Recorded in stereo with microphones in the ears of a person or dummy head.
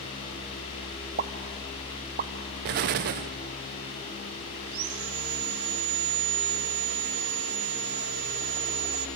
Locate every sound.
1.2 s a pop: 45° right (ahead or behind), 1.0 m
2.6 s an explosion: 55° right (ahead or behind), 0.6 m
4.7 s sawing: 60° right (ahead or behind), 1.2 m